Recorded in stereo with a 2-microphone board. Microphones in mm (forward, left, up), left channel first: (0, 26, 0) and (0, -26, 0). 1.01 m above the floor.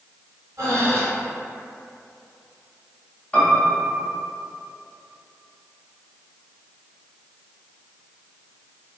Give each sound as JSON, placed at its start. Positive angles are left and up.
{"t": 0.6, "sound": "breathing", "side_deg": -75, "distance_m": 1.1}
{"t": 3.3, "sound": "a piano", "side_deg": 25, "distance_m": 0.7}